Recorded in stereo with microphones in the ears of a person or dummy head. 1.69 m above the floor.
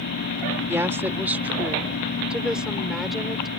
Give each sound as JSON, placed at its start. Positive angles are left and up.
{"t": 0.7, "sound": "a woman speaking", "side_deg": -15}